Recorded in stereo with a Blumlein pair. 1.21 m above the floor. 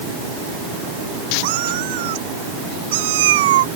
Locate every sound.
1.4 s a cat meowing: 50° right; by 3.7 s 55° right